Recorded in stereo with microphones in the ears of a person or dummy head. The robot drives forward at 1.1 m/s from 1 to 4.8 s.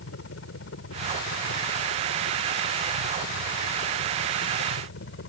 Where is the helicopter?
65° left (ahead or behind); by 5.3 s 60° left (ahead or behind).